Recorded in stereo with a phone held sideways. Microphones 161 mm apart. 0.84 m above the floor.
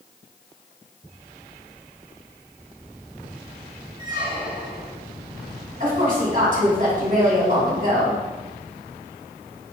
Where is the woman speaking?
50° right (ahead or behind), 1.5 m.